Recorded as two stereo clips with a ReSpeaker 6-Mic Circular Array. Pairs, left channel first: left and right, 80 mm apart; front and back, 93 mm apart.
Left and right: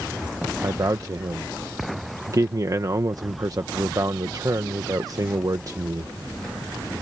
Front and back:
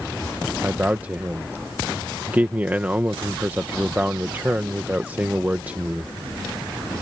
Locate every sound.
0.6 s a man speaking: 115° right